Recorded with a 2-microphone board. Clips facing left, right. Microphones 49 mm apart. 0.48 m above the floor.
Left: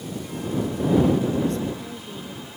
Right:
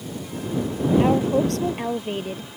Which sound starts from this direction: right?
A woman speaking, at 1.0 s.